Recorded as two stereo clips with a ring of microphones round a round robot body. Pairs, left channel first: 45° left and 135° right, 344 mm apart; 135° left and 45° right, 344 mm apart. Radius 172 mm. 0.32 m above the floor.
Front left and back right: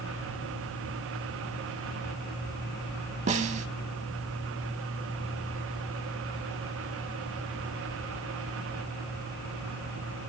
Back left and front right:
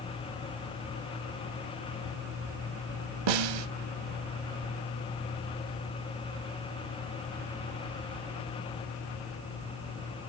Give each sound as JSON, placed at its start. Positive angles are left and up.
{"t": 3.3, "sound": "a snare drum", "azimuth_deg": -65, "distance_m": 0.6}